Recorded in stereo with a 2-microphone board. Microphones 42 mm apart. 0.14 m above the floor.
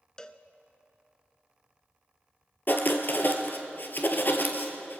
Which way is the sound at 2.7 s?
50° left (ahead or behind).